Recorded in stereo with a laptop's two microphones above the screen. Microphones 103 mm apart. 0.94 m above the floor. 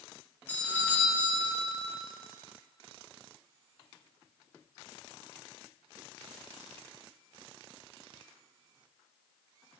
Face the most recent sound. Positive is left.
turn(degrees=15)  # may be behind; listen again after turning